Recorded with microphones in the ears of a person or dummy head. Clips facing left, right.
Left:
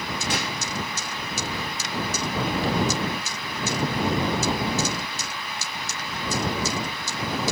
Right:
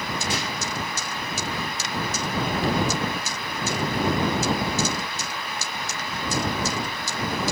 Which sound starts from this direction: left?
A gunshot, at 0.3 s.